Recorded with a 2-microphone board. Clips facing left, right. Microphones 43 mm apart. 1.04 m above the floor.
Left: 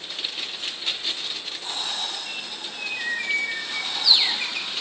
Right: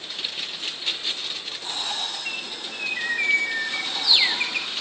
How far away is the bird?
About 2.5 m.